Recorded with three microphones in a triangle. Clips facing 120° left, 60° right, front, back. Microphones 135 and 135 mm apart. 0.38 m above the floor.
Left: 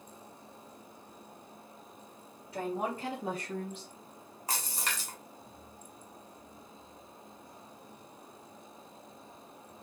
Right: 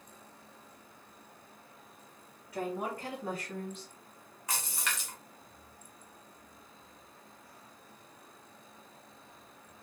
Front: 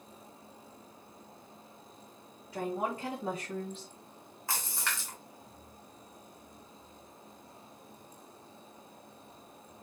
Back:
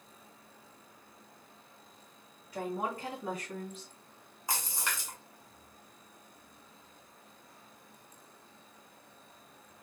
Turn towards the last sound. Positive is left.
turn(degrees=120)